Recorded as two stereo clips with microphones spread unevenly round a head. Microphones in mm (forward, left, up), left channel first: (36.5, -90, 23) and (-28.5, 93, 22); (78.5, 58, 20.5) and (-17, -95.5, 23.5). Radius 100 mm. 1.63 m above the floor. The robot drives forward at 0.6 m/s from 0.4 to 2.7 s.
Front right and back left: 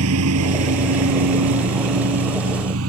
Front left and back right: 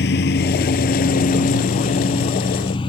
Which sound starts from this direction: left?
A lawn mower, at 0.0 s.